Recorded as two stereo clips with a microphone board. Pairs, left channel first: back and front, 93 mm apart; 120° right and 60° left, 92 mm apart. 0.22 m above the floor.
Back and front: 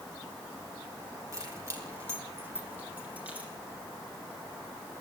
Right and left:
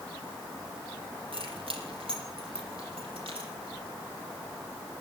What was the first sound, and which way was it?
Keys jangling, 55° left.